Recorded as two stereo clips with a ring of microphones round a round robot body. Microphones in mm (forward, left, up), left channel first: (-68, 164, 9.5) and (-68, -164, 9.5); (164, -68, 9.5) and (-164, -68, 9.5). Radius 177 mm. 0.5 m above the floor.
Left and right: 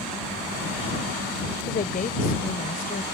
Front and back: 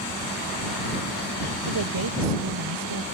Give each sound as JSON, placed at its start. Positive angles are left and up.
{"t": 1.7, "sound": "a woman speaking", "azimuth_deg": 155}